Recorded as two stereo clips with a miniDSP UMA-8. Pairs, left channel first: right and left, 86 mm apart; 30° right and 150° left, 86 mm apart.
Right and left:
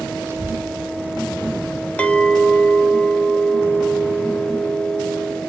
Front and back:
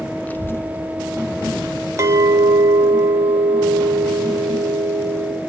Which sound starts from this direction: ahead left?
A child speaking, at 0.3 s.